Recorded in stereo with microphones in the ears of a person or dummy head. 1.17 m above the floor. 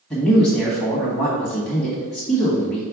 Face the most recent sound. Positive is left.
turn(degrees=5)  # may be behind; listen again after turning